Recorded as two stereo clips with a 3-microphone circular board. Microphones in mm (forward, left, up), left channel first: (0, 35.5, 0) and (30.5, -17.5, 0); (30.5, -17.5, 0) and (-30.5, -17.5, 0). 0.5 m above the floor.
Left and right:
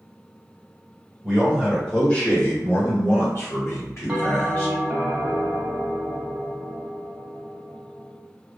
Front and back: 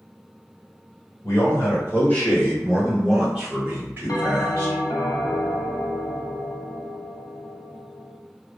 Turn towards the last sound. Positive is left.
turn(degrees=15)